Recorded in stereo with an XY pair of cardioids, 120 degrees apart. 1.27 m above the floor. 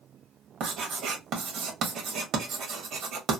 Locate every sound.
0.6 s writing: 65° right, 1.3 m